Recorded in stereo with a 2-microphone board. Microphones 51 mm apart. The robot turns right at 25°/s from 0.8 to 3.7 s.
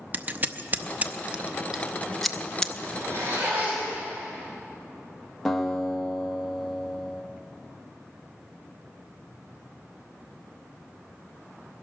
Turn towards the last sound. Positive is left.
turn(degrees=5)  # may be behind; listen again after turning